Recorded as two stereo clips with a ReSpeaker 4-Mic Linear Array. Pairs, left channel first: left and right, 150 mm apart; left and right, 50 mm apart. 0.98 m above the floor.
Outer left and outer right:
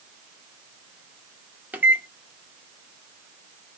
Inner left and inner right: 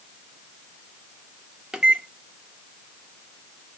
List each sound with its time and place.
1.7 s a microwave: 10° right (ahead or behind), 0.6 m